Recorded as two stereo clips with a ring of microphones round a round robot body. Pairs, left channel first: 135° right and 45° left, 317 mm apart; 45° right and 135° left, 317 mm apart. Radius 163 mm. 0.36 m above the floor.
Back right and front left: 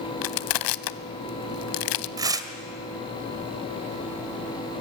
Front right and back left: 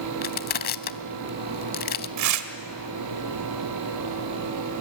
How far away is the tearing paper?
About 1.5 m.